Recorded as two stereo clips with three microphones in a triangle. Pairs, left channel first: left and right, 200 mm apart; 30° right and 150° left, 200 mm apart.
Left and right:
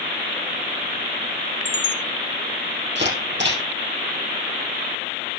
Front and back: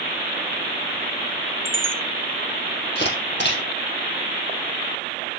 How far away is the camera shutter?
About 4.5 m.